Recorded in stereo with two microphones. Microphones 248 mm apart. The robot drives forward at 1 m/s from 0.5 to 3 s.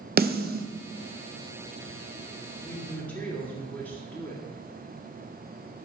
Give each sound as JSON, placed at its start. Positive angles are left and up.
{"t": 0.2, "sound": "a snare drum", "side_deg": -35, "distance_m": 0.5}
{"t": 2.6, "sound": "a woman speaking", "side_deg": 5, "distance_m": 2.0}